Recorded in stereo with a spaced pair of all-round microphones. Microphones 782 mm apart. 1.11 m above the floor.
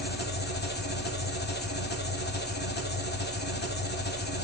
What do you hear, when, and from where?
0.0 s an engine running: 15° left (ahead or behind), 0.7 m